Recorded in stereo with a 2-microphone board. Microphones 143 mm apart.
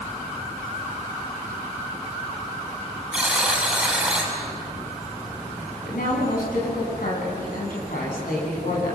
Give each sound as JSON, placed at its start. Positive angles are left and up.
{"t": 3.1, "sound": "a buzzer", "side_deg": -5, "distance_m": 7.0}
{"t": 5.9, "sound": "a woman speaking", "side_deg": 90, "distance_m": 9.0}